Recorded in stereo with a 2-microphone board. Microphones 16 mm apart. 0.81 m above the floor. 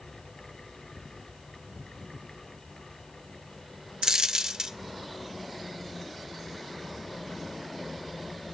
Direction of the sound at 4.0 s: 40° right (ahead or behind).